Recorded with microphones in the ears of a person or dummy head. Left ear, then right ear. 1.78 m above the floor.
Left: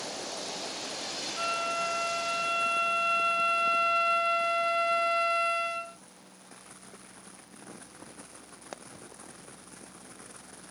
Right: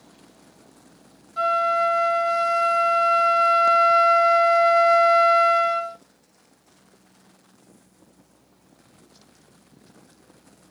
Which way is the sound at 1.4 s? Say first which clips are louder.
Right 11 dB; 65° right (ahead or behind).